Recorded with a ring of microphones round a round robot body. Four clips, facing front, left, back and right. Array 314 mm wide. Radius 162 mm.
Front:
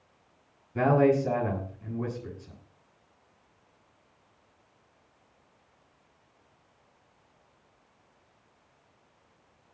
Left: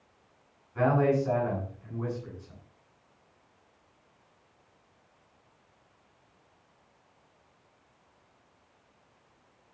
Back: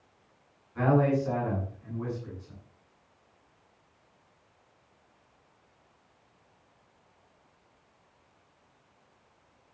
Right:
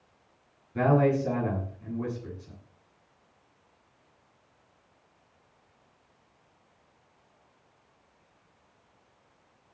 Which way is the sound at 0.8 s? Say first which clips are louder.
Right 1 dB, front 3 dB; 40° right.